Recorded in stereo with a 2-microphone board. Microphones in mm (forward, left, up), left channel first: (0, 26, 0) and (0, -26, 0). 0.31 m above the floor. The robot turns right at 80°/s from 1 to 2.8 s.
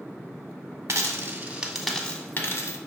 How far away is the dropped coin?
About 0.6 m.